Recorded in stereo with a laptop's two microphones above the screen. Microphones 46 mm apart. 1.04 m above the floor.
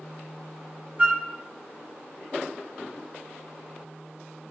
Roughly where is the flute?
Right.